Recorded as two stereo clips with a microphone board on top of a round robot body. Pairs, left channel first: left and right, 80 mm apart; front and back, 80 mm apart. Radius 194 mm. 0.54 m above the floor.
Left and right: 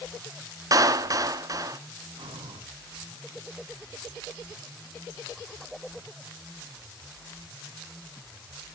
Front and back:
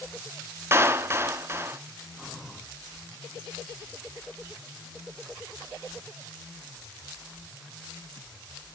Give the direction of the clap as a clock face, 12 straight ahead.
4 o'clock.